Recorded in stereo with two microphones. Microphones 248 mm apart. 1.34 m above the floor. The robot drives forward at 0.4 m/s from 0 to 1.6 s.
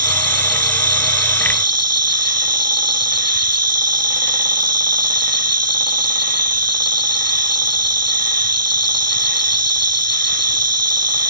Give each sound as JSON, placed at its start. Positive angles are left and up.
{"t": 0.0, "sound": "an insect", "side_deg": -80}